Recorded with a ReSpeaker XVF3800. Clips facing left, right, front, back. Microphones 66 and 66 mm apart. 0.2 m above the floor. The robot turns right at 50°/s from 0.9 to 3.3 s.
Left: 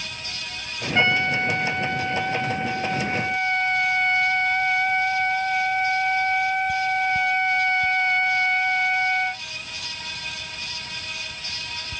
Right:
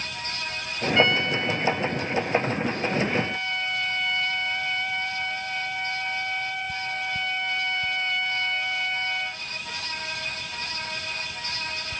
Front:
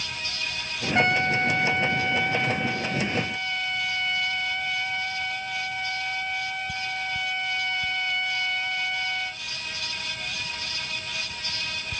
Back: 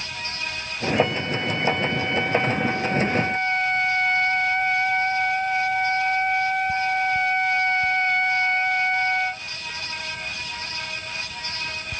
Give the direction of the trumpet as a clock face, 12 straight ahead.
11 o'clock.